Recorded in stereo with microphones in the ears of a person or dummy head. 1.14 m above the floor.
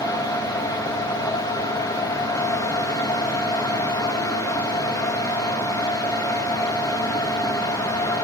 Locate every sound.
0.0 s a fan: 20° left (ahead or behind), 1.2 m